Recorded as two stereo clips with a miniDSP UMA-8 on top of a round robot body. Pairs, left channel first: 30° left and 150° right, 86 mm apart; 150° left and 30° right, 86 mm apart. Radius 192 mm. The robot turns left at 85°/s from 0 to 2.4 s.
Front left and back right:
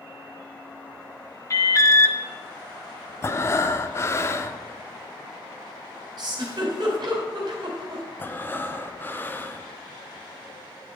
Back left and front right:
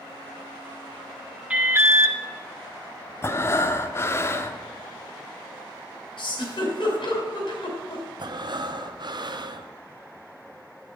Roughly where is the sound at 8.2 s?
Ahead right.